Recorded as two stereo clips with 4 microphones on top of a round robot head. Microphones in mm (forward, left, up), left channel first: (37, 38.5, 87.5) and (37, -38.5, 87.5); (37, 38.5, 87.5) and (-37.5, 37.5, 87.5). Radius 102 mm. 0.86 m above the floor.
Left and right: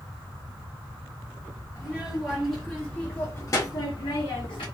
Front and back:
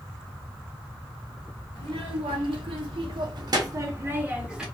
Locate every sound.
1.8 s a child speaking: 170° right, 1.2 m; by 4.6 s 100° left, 0.8 m